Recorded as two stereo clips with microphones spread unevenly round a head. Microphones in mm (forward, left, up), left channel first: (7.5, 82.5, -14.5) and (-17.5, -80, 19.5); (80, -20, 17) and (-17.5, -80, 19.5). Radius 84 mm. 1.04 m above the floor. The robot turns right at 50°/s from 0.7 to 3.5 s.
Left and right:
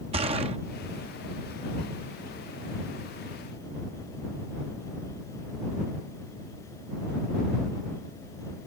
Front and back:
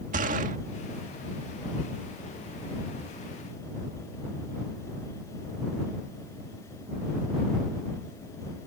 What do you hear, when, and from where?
0.1 s a gunshot: 155° right